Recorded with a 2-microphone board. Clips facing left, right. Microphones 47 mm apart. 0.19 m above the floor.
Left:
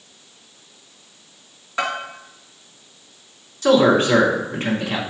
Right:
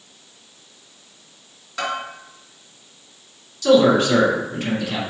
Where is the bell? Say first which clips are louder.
Left 2 dB; 25° left (ahead or behind), 2 m.